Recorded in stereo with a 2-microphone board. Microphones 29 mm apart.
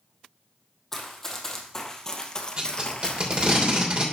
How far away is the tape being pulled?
About 3 m.